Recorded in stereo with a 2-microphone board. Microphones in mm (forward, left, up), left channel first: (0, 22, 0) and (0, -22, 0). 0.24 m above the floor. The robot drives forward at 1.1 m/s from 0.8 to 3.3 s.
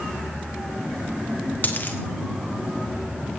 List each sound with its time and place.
1.6 s a dropped coin: 45° left (ahead or behind), 3 m; by 2.0 s 50° left (ahead or behind), 3 m